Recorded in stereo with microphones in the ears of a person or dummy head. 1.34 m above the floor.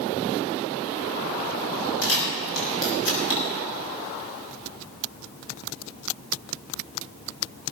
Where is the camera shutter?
80° left, 6 m.